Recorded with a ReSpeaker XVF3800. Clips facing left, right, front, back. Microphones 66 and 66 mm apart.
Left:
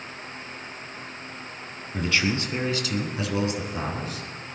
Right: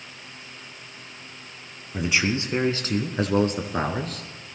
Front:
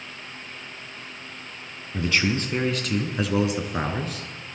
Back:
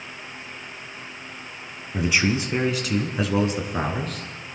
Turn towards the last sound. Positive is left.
turn(degrees=-80)